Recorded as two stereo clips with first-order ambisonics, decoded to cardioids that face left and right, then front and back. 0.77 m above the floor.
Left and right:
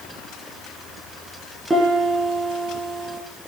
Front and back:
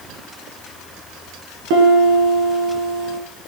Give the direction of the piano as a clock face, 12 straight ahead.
6 o'clock.